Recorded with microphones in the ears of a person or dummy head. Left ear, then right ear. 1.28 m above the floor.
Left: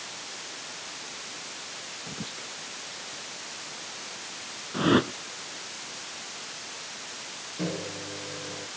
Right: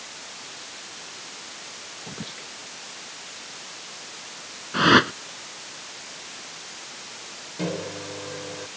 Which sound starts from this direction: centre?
Whispering, at 2.1 s.